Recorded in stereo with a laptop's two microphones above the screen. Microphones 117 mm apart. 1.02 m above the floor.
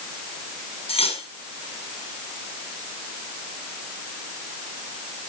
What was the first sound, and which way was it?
Cutlery clinking, 60° left (ahead or behind).